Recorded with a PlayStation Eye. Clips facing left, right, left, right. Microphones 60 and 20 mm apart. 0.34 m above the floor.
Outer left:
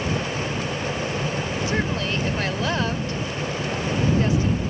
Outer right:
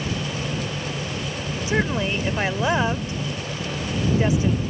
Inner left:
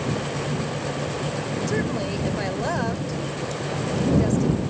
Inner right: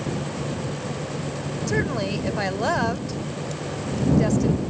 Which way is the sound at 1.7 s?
20° right (ahead or behind).